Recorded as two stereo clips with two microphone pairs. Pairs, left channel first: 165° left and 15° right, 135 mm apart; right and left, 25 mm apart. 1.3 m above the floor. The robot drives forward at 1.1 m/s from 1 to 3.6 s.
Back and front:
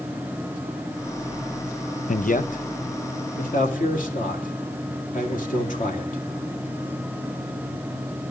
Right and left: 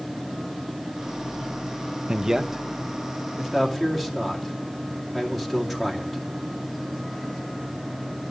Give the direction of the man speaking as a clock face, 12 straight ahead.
7 o'clock.